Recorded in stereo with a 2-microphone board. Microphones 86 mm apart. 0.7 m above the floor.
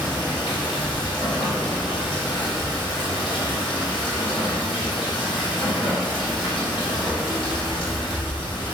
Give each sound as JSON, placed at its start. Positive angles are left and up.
{"t": 0.0, "sound": "running water", "side_deg": 75, "distance_m": 1.6}